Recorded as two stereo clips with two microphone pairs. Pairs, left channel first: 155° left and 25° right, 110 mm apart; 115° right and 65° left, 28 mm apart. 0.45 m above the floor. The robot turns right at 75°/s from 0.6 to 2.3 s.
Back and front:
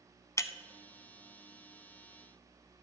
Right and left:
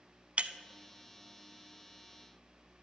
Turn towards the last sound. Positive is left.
turn(degrees=-140)